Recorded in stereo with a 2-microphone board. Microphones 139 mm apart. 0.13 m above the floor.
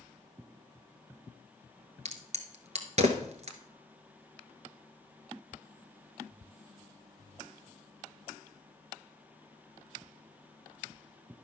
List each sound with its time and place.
2.0 s a crack: 50° right (ahead or behind), 1.2 m